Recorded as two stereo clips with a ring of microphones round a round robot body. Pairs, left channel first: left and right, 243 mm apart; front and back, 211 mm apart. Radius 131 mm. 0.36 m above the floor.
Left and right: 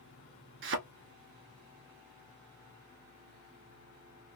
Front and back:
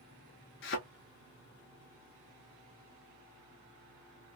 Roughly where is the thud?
Ahead right.